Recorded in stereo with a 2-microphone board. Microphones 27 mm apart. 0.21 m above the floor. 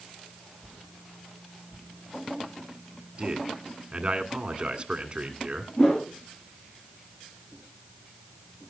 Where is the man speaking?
35° right (ahead or behind), 1.6 m.